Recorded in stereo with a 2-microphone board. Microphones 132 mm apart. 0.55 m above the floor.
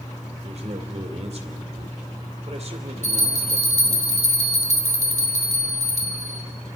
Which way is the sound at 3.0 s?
55° left (ahead or behind).